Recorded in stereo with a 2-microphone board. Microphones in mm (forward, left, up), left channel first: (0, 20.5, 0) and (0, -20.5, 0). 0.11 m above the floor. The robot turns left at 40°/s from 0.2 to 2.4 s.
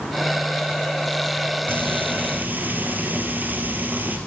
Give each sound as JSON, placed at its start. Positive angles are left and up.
{"t": 1.7, "sound": "frying", "side_deg": -60, "distance_m": 3.0}